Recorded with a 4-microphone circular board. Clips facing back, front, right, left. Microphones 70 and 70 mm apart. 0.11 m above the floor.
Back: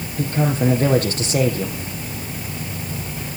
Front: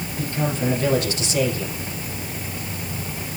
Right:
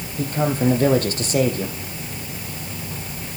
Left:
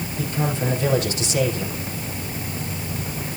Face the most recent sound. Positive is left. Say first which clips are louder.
# back 5 dB, right 4 dB
turn(degrees=-135)